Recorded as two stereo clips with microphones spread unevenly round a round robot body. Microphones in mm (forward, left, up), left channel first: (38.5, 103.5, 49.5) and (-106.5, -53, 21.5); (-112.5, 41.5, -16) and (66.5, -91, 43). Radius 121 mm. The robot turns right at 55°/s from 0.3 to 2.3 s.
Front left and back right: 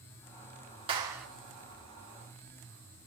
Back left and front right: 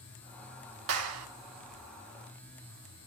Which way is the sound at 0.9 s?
65° right.